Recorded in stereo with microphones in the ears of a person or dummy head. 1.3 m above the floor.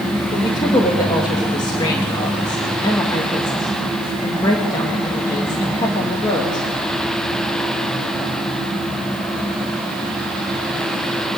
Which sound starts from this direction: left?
A woman speaking, at 0.3 s.